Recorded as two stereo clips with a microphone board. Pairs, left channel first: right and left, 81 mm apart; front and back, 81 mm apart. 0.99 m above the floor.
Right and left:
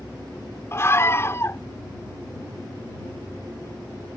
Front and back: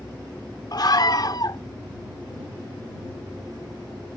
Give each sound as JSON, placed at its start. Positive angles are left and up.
{"t": 0.7, "sound": "a scream", "azimuth_deg": -35}